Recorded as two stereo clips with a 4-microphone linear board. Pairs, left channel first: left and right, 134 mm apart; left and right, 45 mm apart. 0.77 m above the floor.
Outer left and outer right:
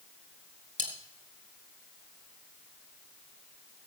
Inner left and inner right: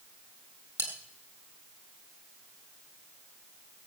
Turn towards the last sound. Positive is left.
turn(degrees=-70)  # may be behind; listen again after turning